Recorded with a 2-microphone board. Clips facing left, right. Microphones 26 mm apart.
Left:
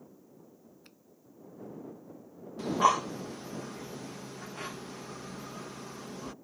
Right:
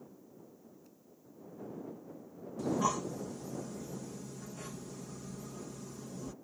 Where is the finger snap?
65° left (ahead or behind).